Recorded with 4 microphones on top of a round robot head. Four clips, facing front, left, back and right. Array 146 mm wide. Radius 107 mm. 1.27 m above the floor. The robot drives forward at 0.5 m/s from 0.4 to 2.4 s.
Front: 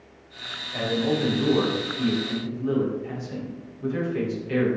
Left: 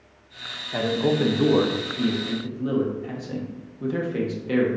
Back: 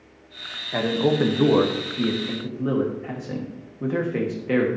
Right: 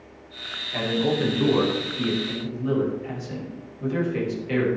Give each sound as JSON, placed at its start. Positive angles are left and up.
{"t": 0.7, "sound": "a man speaking", "azimuth_deg": 150, "distance_m": 1.5}